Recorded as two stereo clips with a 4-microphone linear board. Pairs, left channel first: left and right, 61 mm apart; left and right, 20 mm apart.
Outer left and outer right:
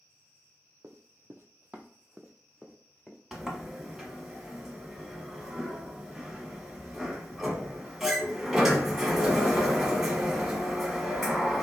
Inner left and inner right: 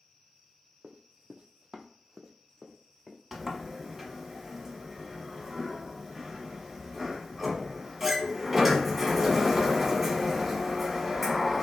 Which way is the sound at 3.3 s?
10° right (ahead or behind).